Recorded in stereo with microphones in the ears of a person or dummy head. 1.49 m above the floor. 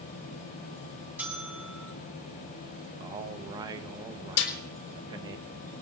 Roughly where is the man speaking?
Right.